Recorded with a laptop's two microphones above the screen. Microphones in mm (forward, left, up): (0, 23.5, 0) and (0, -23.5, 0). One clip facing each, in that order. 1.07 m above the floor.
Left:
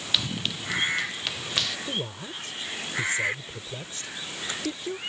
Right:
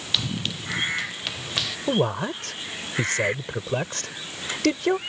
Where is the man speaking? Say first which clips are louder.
Right 10 dB; 80° right.